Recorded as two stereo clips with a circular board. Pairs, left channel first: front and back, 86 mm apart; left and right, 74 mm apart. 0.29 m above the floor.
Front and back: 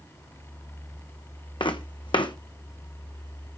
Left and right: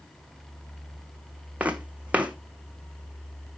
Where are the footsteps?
20° right, 1.2 m.